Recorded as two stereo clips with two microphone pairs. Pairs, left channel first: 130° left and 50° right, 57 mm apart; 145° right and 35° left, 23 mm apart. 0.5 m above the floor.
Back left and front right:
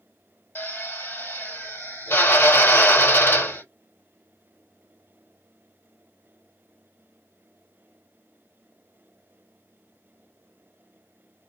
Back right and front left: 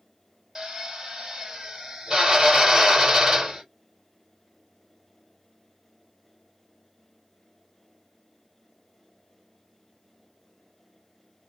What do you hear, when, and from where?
0.6 s a drill: 100° left, 2 m